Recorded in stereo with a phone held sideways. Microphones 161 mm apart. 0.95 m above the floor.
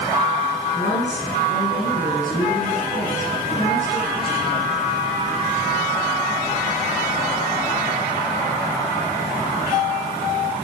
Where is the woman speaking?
85° left, 7.5 m.